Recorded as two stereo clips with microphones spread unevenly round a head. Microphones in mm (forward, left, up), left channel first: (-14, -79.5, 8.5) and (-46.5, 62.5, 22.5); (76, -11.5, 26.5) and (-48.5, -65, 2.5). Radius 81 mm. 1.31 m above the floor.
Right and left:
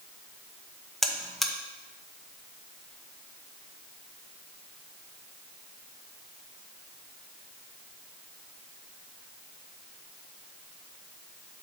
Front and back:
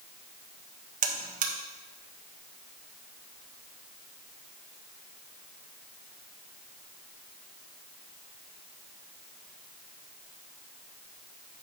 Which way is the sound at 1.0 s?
165° right.